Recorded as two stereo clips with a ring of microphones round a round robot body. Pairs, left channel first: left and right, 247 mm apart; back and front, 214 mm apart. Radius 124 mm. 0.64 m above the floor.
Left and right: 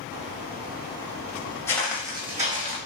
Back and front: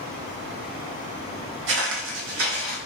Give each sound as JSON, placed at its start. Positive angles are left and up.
{"t": 1.7, "sound": "footsteps", "azimuth_deg": 10, "distance_m": 1.0}